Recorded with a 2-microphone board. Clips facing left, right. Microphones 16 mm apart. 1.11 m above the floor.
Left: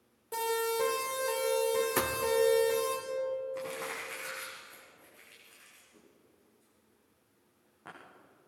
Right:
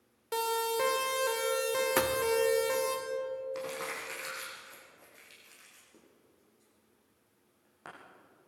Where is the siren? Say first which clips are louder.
Even; 65° right (ahead or behind), 4 m; by 3.0 s 35° right (ahead or behind), 4.5 m.